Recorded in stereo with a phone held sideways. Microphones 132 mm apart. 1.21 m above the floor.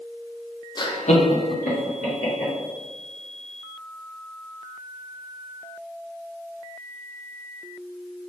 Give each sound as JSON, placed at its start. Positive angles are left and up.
{"t": 0.8, "sound": "laughter", "side_deg": 30, "distance_m": 0.5}